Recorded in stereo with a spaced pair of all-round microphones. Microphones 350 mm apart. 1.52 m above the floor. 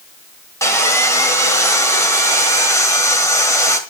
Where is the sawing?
10° left (ahead or behind), 1.8 m.